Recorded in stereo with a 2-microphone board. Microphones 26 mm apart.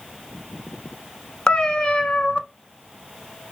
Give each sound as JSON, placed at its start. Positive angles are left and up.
{"t": 1.5, "sound": "a cat meowing", "side_deg": 35, "distance_m": 0.7}